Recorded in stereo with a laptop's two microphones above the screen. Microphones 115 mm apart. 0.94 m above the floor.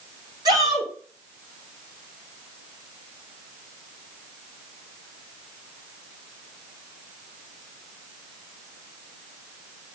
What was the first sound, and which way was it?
A shout, 35° right (ahead or behind).